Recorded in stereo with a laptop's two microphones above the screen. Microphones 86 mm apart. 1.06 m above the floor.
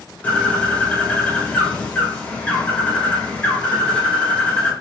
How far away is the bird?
About 0.9 m.